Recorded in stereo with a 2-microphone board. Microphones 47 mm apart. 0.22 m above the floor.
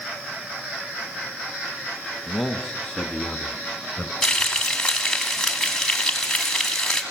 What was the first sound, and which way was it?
A man speaking, 10° right (ahead or behind).